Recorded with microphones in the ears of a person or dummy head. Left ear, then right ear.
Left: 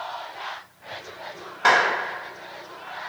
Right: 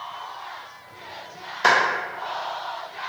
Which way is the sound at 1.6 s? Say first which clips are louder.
Even; 70° right (ahead or behind).